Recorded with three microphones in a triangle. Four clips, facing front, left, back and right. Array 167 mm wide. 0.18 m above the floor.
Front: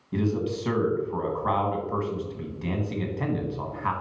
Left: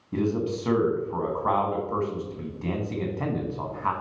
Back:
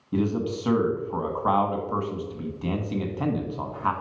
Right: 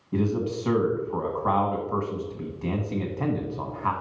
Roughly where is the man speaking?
Behind.